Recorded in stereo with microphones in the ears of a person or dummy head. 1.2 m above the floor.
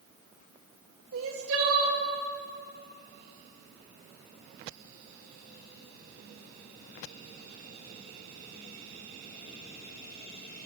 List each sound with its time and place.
1.1 s crying: 75° right (ahead or behind), 2.0 m